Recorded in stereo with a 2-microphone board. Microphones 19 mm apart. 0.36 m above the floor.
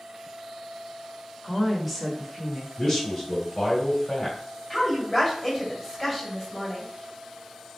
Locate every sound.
1.4 s a woman speaking: 5° right (ahead or behind), 0.9 m
2.8 s a man speaking: 30° left (ahead or behind), 1.9 m
4.7 s a woman speaking: 20° left (ahead or behind), 1.9 m